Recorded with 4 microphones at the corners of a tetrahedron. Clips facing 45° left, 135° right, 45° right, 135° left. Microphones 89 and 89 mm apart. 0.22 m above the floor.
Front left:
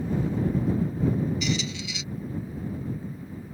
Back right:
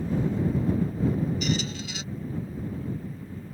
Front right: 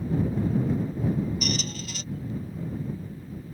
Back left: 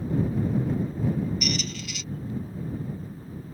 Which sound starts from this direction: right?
A squeak, at 1.4 s.